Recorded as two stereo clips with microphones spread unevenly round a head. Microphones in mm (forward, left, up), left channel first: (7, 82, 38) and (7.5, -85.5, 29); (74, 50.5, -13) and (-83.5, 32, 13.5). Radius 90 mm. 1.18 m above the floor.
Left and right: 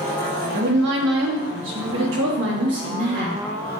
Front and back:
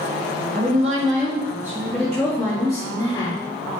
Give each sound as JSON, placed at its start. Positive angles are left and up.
{"t": 0.5, "sound": "a woman speaking", "azimuth_deg": -120, "distance_m": 1.2}